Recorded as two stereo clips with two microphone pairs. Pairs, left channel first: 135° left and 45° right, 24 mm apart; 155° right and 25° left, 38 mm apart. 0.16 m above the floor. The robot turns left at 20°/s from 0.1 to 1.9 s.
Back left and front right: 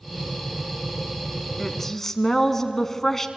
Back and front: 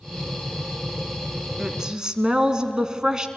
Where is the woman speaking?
85° left, 1.3 m; by 3.3 s 75° left, 1.3 m.